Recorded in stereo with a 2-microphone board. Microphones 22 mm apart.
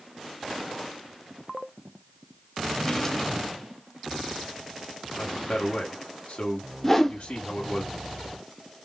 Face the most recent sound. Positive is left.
turn(degrees=10)  # may be behind; listen again after turning